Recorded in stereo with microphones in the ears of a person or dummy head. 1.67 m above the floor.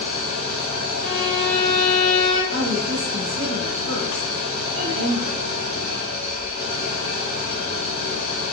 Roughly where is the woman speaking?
Right.